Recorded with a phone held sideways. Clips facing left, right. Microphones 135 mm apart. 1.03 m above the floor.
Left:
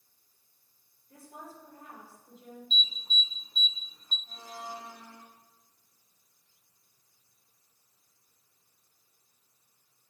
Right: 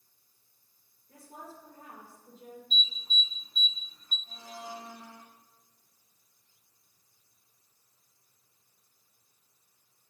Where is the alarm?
25° left (ahead or behind), 0.8 m.